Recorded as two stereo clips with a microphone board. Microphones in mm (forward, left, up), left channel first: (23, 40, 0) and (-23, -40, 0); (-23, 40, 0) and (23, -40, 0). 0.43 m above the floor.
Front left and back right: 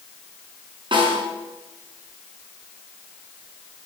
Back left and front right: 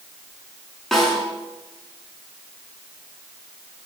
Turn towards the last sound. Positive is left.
turn(degrees=-155)